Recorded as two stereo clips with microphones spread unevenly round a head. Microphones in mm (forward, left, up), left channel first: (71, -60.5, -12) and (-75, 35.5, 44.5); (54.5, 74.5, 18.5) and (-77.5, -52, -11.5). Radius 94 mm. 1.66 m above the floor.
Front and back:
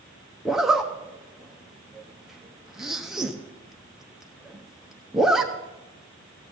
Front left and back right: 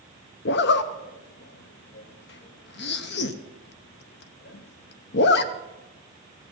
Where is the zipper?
65° left, 0.7 m.